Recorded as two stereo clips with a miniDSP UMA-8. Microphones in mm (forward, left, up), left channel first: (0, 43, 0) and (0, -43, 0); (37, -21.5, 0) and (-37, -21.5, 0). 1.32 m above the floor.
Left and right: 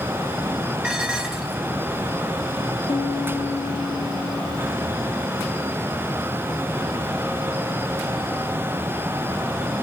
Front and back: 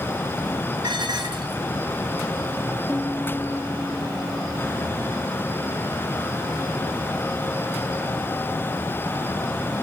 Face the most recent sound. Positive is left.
turn(degrees=90)